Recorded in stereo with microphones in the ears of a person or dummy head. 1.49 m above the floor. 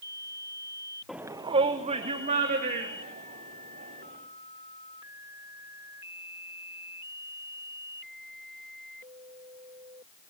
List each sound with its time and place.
1.1 s a shout: centre (ahead or behind), 0.7 m; by 4.2 s 45° right (ahead or behind), 5 m